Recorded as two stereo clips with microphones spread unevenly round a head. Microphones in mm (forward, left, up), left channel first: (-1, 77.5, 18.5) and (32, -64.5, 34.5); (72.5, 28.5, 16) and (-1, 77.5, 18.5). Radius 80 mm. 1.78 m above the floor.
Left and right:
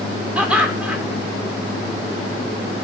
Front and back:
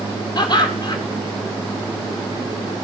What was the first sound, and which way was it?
Laughter, 10° left.